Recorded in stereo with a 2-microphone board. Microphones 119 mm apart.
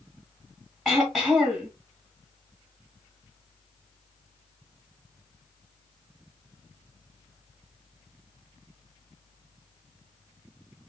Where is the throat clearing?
Centre (ahead or behind), 1.6 m.